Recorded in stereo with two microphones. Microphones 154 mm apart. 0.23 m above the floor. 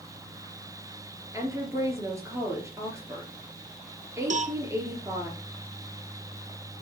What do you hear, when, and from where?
1.3 s a woman speaking: 20° right (ahead or behind), 3.5 m
4.3 s a cowbell: 55° right (ahead or behind), 0.5 m